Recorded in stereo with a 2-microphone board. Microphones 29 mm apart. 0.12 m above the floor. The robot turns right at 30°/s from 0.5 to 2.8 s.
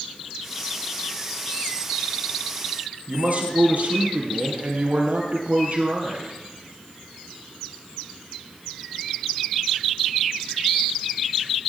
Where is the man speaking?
60° right (ahead or behind), 2.5 m.